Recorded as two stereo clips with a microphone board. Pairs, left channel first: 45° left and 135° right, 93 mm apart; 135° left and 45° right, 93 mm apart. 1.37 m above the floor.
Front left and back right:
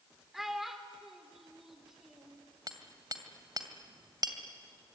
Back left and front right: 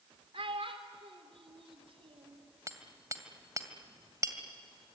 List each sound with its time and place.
0.3 s a child speaking: 50° right, 3.5 m
2.7 s hammering: 95° right, 2.5 m